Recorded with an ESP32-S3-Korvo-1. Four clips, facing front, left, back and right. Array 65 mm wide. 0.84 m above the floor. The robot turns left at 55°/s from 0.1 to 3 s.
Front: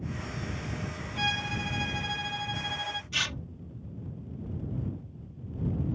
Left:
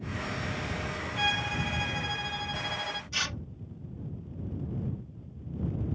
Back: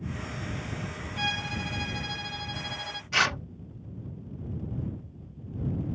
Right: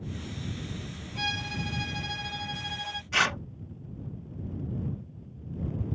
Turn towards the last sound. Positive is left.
turn(degrees=-135)